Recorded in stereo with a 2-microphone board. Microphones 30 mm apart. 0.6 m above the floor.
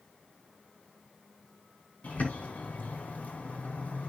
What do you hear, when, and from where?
2.0 s a bird: 60° left (ahead or behind), 3 m